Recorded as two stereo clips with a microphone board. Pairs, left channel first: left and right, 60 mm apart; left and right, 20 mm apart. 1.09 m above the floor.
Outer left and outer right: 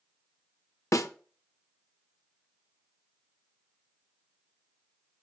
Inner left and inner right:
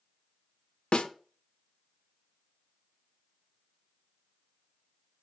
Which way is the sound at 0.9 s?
60° left (ahead or behind).